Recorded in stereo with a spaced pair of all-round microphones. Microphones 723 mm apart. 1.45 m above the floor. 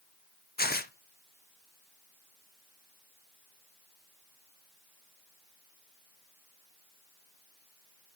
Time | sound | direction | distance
0.6 | tearing paper | 15° left (ahead or behind) | 0.6 m